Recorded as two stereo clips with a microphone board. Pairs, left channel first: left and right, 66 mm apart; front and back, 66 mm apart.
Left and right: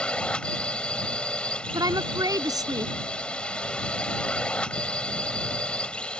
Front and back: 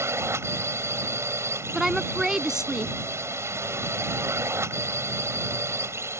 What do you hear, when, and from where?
0.0 s a drone: 155° left
1.7 s a woman speaking: 95° right